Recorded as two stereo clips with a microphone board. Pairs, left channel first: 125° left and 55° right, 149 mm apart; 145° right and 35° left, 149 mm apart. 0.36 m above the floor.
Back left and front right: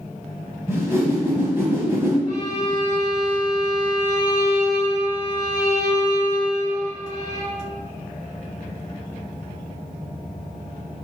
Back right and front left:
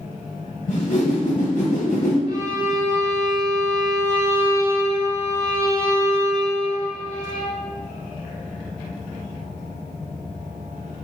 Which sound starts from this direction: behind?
A violin, at 2.3 s.